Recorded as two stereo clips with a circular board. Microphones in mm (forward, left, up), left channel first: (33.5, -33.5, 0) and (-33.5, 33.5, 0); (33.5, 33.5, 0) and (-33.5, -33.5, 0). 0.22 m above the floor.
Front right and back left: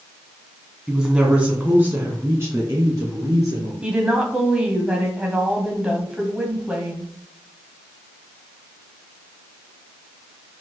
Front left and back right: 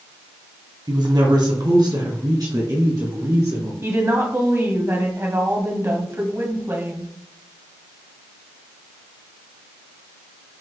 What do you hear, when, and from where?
0.9 s a woman speaking: 145° right, 1.7 m; by 3.7 s straight behind, 2.5 m
3.8 s a woman speaking: 160° right, 1.2 m